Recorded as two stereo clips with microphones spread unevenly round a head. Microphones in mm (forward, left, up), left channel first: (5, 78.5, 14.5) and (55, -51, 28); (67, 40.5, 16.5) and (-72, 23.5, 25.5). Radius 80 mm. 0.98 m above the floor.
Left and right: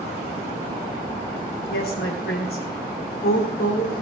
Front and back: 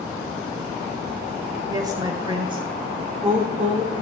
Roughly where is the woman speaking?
Behind left.